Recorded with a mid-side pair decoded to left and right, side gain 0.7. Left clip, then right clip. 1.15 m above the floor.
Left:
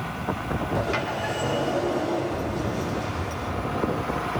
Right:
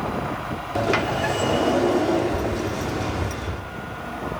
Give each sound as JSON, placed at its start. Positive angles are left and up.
{"t": 0.8, "sound": "a sliding door", "azimuth_deg": -35, "distance_m": 2.5}